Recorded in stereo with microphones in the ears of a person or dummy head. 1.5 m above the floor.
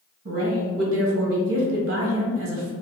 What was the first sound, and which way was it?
A woman speaking, 75° right (ahead or behind).